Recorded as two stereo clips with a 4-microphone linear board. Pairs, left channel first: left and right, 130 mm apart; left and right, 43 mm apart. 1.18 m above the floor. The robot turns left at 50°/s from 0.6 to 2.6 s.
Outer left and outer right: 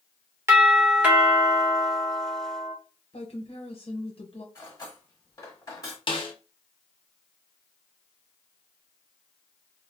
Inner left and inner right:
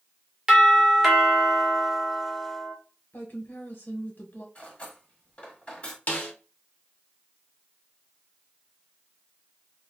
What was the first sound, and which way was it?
A doorbell, 20° right (ahead or behind).